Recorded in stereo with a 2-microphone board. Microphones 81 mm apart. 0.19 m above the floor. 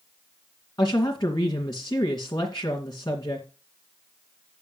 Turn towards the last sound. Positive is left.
turn(degrees=55)  # may be behind; listen again after turning